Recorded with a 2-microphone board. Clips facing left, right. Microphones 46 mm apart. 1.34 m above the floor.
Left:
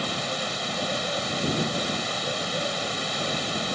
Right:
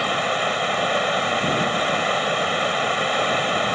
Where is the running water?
35° right (ahead or behind).